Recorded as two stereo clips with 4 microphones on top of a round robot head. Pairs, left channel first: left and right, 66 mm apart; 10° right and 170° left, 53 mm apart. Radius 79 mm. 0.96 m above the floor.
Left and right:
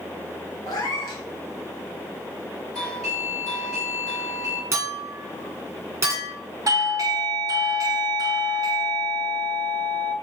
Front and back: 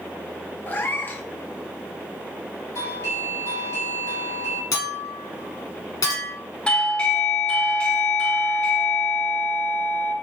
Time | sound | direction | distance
0.7 | a cat meowing | 40° left | 0.6 m
2.8 | a doorbell | 5° left | 2.5 m
4.7 | a clink | 35° right | 1.8 m
6.7 | a doorbell | 75° right | 1.0 m